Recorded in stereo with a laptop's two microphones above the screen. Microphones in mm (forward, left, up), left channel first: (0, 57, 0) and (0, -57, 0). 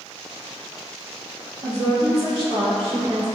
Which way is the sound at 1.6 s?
65° right (ahead or behind).